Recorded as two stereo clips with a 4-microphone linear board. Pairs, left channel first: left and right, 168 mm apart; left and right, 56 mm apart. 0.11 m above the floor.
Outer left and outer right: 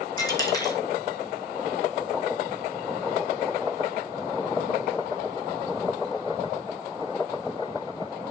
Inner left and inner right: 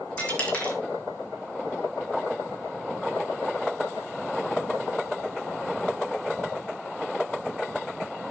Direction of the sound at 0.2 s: 20° left (ahead or behind).